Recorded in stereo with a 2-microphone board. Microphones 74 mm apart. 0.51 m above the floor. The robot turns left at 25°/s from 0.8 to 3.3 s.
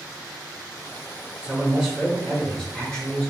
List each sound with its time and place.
1.4 s a man speaking: 155° right, 1.1 m; by 3.3 s 155° left, 1.1 m